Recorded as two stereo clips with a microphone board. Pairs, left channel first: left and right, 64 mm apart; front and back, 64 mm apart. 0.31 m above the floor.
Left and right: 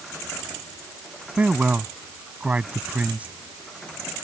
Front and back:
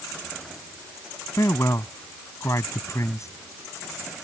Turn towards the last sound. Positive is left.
turn(degrees=-25)